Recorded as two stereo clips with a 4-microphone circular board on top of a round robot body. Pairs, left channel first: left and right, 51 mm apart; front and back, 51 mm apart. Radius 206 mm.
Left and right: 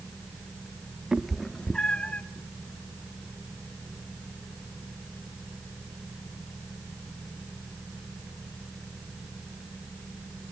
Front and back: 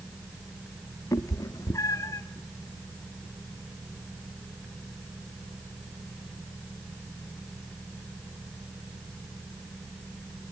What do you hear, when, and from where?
1.1 s a cat meowing: 10° right, 0.5 m; by 2.2 s 25° left, 0.9 m